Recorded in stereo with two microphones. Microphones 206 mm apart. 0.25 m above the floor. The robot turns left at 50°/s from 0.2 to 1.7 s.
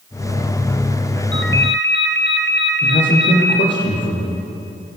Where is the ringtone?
75° left (ahead or behind), 2.5 m; by 3.6 s 65° left (ahead or behind), 2.5 m.